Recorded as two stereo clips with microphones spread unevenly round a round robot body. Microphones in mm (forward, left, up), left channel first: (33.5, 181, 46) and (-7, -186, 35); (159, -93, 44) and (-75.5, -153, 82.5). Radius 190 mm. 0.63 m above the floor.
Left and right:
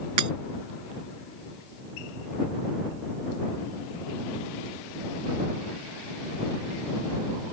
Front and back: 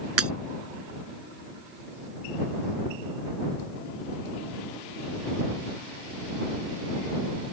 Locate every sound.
0.2 s breaking glass: 140° right